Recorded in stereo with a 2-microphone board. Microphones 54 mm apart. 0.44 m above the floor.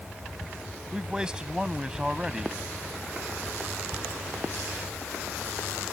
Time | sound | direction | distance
0.9 | a man speaking | 20° right (ahead or behind) | ?